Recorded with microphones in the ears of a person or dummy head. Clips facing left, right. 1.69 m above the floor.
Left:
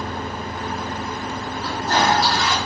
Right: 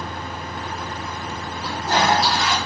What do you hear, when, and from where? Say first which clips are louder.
1.6 s a toilet flushing: even; 10° right (ahead or behind), 2.0 m